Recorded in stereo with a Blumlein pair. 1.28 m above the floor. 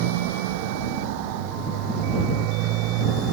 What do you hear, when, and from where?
0.0 s a motorcycle: 50° right; by 3.3 s 40° right